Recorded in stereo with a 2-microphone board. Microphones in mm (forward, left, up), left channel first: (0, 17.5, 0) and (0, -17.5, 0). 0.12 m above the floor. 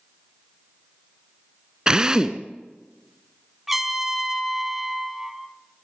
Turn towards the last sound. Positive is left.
turn(degrees=-10)  # may be behind; listen again after turning